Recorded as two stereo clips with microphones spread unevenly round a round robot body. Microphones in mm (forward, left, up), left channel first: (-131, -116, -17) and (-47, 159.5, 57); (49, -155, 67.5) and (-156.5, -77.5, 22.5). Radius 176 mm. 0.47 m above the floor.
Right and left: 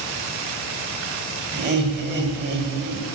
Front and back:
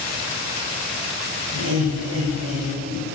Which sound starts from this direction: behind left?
Laughter, at 1.5 s.